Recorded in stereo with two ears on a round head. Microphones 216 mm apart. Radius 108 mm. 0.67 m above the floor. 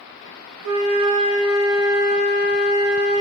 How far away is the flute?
About 0.7 m.